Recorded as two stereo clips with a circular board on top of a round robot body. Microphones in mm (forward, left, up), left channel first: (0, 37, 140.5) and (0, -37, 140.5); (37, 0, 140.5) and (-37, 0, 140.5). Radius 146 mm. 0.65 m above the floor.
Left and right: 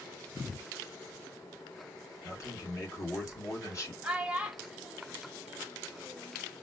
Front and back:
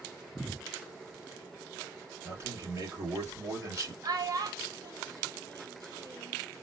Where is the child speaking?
165° right, 1.1 m.